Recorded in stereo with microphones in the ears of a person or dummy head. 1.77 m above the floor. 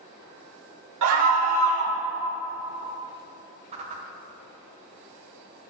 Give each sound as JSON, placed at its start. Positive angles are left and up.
{"t": 1.0, "sound": "a scream", "side_deg": -85, "distance_m": 3.0}
{"t": 3.7, "sound": "a whoosh", "side_deg": -30, "distance_m": 2.0}